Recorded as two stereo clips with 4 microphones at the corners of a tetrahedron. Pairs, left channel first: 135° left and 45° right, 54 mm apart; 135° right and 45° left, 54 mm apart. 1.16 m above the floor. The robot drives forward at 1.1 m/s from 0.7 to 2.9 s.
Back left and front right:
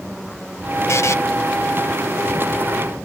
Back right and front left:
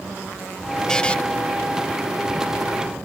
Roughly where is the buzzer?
Behind left.